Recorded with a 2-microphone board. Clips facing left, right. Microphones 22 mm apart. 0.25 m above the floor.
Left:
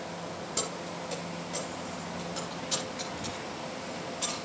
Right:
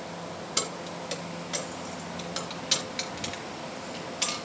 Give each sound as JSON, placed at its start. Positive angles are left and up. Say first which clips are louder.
{"t": 0.6, "sound": "keys jangling", "louder": "right 4 dB", "side_deg": -50, "distance_m": 2.5}